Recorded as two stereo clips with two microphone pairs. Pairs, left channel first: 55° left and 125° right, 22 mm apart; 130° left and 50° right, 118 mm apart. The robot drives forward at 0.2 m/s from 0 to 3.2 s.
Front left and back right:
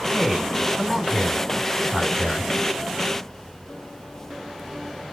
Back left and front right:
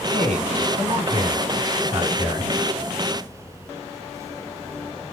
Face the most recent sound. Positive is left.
turn(degrees=-70)